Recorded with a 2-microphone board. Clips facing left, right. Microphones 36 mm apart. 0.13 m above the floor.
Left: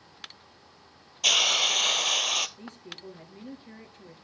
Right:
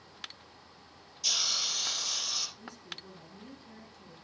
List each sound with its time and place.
1.2 s a hiss: 70° left (ahead or behind), 0.5 m
2.6 s a woman speaking: 50° left (ahead or behind), 2.5 m